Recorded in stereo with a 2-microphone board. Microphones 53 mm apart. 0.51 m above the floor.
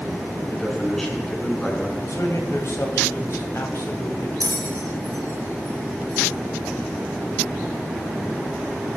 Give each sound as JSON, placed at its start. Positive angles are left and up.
{"t": 0.5, "sound": "a man speaking", "side_deg": 5, "distance_m": 5.5}
{"t": 2.0, "sound": "a man speaking", "side_deg": 65, "distance_m": 3.0}
{"t": 4.4, "sound": "a bell", "side_deg": -85, "distance_m": 5.5}